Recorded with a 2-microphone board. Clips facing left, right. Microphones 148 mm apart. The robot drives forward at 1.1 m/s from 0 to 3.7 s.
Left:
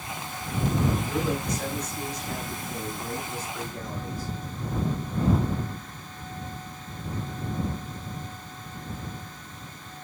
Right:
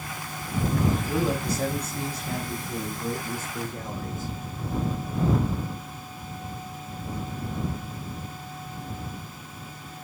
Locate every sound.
1.1 s a man speaking: 35° right (ahead or behind), 6 m; by 4.3 s 25° right (ahead or behind), 8.5 m